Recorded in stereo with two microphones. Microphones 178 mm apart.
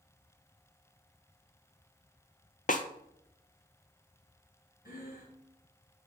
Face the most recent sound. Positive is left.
turn(degrees=50)  # may be behind; listen again after turning